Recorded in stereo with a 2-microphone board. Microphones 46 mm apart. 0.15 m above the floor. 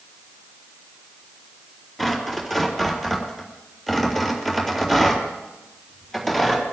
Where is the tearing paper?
5° left (ahead or behind), 3.5 m.